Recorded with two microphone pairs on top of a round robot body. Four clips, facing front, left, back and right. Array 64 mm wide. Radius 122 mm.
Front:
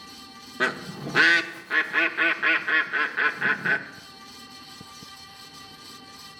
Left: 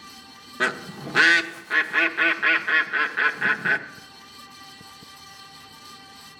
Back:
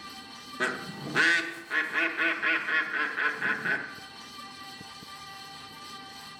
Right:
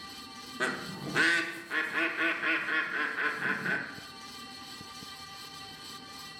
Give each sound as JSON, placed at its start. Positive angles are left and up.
{"t": 0.6, "sound": "a bird", "azimuth_deg": 60, "distance_m": 1.1}